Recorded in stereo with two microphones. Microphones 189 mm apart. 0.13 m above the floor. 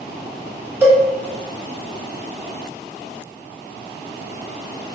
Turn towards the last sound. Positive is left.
turn(degrees=-10)  # may be behind; listen again after turning